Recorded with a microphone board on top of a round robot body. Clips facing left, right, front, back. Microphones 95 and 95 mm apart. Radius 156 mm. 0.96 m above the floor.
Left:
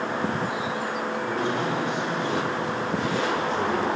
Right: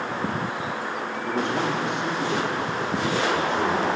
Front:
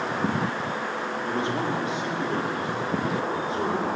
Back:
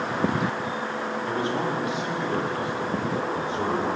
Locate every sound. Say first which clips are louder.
1.3 s a man speaking: right 3 dB, even; 65° right, 2.5 m; by 3.9 s 55° right, 4.5 m